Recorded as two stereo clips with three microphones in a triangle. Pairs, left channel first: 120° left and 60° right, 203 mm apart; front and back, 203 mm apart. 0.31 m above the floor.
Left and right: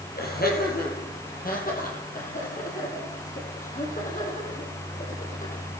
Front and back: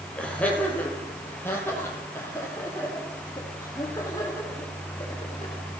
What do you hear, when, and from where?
0.1 s laughter: 85° left, 8.5 m; by 5.6 s 70° left, 12.5 m